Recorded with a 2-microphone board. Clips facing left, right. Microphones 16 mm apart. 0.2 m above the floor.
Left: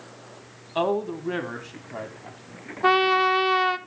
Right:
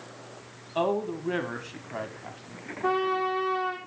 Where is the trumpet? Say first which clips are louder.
Left 7 dB; 75° left (ahead or behind), 0.9 m.